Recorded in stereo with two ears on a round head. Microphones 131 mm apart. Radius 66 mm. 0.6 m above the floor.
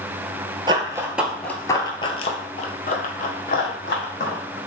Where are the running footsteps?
30° right (ahead or behind), 0.6 m; by 4.6 s 75° left (ahead or behind), 1.8 m.